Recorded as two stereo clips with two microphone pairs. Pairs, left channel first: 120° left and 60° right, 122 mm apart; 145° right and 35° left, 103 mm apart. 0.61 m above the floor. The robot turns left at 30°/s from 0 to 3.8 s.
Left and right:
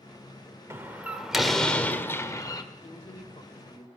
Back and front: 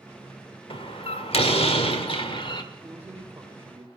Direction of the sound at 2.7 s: 115° left.